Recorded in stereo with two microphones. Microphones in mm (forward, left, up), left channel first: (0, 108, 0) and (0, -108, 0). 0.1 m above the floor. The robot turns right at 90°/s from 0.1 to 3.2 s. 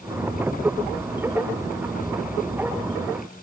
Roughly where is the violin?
I don't hear a violin.